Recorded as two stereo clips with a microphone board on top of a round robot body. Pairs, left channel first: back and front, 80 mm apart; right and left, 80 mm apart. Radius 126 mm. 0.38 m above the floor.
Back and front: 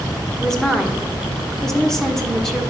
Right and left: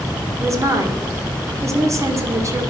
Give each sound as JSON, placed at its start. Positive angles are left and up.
{"t": 0.4, "sound": "a woman speaking", "azimuth_deg": 95, "distance_m": 1.8}